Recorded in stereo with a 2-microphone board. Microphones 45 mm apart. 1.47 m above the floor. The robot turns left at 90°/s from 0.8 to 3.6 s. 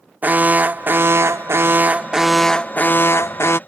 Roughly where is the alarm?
Ahead right.